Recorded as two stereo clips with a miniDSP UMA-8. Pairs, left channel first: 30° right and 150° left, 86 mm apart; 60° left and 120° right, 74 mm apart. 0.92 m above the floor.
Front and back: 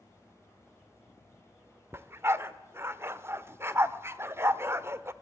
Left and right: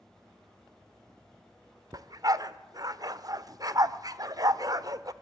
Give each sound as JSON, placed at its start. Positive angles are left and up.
{"t": 1.9, "sound": "a dog barking", "azimuth_deg": -150, "distance_m": 1.0}